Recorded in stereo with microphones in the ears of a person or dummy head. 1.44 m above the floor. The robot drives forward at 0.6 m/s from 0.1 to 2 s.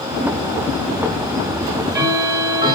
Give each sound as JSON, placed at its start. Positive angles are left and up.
{"t": 1.6, "sound": "ticking", "side_deg": -20, "distance_m": 2.0}